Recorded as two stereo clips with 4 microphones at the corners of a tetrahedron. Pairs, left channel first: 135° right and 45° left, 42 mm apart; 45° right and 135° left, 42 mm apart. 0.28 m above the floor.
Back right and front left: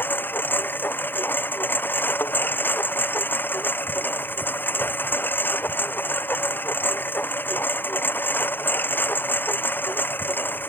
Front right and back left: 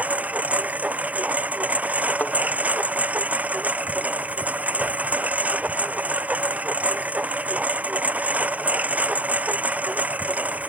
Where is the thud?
100° right.